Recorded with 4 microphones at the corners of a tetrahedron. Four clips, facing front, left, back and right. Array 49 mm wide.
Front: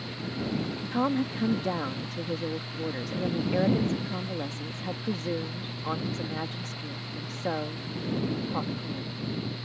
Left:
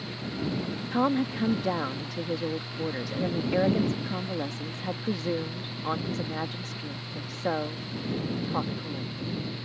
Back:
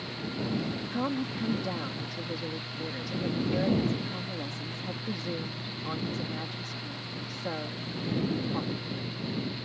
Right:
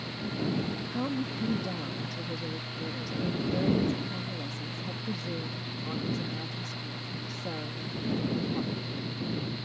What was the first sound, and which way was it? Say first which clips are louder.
A woman speaking: left 10 dB, front 6 dB; 65° left.